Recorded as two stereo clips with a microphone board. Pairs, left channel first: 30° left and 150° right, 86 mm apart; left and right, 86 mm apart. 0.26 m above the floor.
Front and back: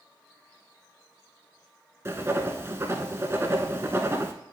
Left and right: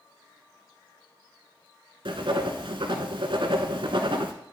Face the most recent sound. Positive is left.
turn(degrees=-95)